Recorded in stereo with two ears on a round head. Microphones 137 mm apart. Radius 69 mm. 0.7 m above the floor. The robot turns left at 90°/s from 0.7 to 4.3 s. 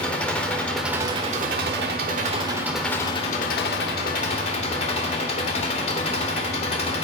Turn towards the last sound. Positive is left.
turn(degrees=45)